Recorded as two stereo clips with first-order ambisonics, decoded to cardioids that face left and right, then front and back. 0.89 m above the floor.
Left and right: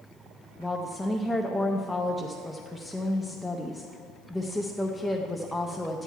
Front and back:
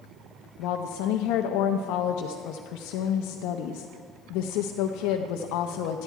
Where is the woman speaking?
5° left, 0.5 m.